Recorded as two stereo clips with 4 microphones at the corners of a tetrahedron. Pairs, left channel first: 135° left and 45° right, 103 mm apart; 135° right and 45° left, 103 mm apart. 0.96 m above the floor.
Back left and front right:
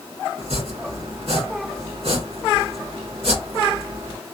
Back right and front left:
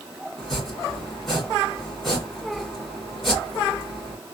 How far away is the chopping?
About 1.9 m.